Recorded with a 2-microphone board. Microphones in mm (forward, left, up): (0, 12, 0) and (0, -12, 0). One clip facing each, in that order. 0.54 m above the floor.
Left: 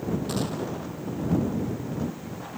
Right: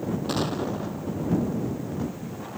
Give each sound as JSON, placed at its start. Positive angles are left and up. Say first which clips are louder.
{"t": 0.3, "sound": "an explosion", "louder": "right 2 dB", "side_deg": -20}